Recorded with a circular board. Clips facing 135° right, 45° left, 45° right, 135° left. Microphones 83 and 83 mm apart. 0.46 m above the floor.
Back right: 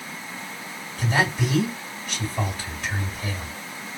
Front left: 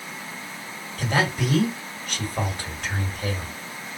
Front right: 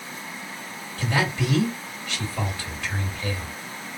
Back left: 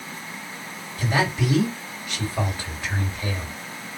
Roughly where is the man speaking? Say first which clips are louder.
Even, back left 2 dB; ahead left.